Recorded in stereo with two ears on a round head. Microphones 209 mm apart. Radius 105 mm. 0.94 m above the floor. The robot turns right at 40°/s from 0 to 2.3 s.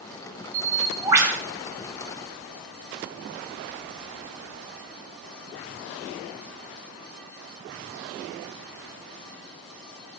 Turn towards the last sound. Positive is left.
turn(degrees=35)